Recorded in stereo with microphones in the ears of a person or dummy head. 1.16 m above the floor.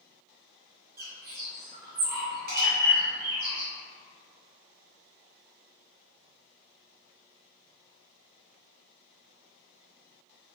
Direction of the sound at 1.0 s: 50° right (ahead or behind).